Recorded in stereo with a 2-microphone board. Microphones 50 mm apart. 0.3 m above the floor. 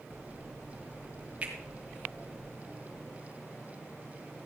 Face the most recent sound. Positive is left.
turn(degrees=-25)  # may be behind; listen again after turning